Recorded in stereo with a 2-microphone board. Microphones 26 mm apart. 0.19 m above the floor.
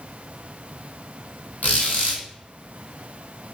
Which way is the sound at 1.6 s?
75° left (ahead or behind).